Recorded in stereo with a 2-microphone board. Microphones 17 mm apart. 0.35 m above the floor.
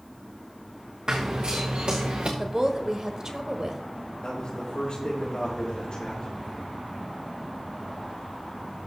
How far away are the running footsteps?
About 1.8 m.